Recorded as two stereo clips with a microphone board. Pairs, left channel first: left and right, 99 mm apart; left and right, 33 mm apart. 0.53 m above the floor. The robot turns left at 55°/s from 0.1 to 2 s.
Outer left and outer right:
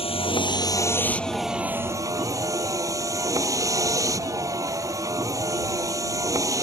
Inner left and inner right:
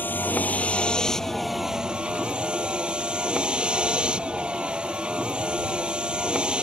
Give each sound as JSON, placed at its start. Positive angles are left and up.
{"t": 0.0, "sound": "a vehicle", "azimuth_deg": 70}